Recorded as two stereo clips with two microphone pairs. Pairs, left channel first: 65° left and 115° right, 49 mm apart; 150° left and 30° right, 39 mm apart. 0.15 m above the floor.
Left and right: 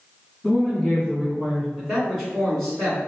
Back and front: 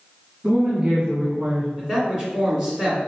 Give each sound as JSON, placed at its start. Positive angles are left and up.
{"t": 0.4, "sound": "a woman speaking", "azimuth_deg": -30, "distance_m": 1.4}
{"t": 1.8, "sound": "a man speaking", "azimuth_deg": -20, "distance_m": 1.7}